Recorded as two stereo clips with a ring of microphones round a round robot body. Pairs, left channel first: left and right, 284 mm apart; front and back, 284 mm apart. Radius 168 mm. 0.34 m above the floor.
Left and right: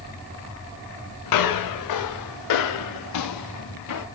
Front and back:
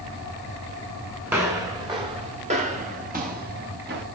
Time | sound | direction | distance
1.3 | footsteps | 95° left | 6 m